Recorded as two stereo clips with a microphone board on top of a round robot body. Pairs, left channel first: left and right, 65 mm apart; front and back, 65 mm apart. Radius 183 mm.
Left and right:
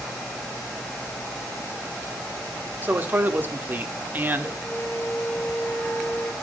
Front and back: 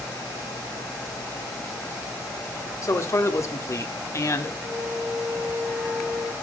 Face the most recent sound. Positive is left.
turn(degrees=125)